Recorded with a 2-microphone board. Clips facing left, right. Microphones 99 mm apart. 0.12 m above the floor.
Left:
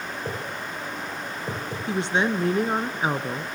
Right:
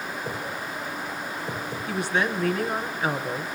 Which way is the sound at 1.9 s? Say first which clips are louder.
Left 2 dB; 25° left (ahead or behind).